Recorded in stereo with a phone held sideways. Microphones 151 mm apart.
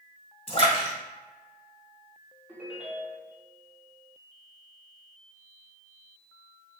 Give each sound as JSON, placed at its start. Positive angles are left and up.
{"t": 0.5, "sound": "a splash", "side_deg": 40, "distance_m": 2.0}
{"t": 2.5, "sound": "a ringtone", "side_deg": -10, "distance_m": 1.4}